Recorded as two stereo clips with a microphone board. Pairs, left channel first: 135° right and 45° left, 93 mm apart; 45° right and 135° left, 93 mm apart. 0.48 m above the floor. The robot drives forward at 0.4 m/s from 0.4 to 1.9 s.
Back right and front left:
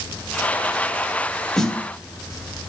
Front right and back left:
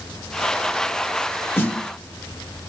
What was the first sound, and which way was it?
A snare drum, 60° right.